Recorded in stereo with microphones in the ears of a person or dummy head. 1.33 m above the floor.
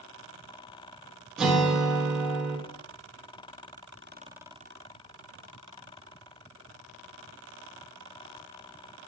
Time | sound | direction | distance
1.4 | a guitar | 5° right (ahead or behind) | 1.1 m